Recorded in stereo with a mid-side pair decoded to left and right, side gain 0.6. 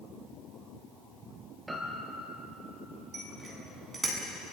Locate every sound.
1.7 s a piano: 10° right, 5 m
3.1 s a bicycle bell: 30° right, 8.5 m